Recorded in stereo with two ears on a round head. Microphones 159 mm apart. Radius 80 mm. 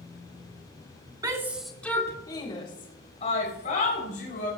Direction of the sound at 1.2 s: 25° right (ahead or behind).